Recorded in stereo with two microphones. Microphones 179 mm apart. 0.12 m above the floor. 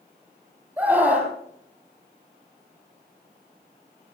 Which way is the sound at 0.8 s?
15° right (ahead or behind).